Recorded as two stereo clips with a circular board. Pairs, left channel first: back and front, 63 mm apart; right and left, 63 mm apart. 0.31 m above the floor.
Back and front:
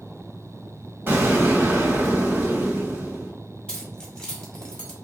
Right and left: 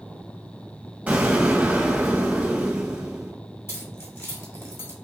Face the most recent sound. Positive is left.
turn(degrees=-110)